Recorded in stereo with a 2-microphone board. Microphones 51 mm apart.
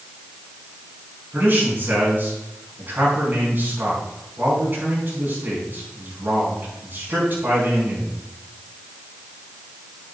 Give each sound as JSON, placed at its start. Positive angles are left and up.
{"t": 1.3, "sound": "a man speaking", "side_deg": -40, "distance_m": 4.5}